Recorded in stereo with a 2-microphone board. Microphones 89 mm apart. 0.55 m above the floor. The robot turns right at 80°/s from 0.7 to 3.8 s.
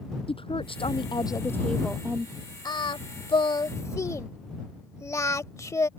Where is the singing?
55° left (ahead or behind); by 5.9 s 35° left (ahead or behind).